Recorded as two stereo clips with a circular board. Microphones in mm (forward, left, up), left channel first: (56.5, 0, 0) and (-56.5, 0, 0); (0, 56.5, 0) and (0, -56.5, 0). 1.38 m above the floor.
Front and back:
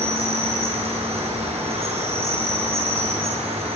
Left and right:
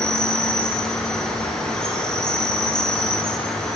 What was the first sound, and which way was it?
An insect, 175° left.